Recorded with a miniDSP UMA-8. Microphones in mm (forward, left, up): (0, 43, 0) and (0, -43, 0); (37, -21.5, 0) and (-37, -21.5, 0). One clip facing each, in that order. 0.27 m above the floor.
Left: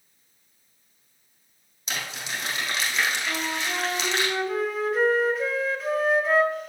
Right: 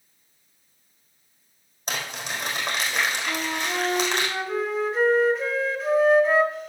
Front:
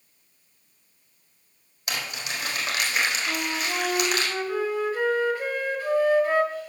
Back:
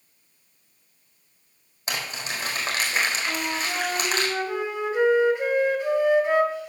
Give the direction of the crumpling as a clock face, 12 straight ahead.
4 o'clock.